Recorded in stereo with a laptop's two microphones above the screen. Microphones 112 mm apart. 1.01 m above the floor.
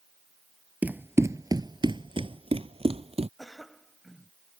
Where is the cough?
Centre (ahead or behind).